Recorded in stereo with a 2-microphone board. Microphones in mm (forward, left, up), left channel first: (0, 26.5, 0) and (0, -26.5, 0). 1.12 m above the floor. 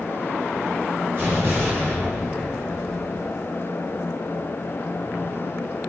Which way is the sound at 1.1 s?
50° right (ahead or behind).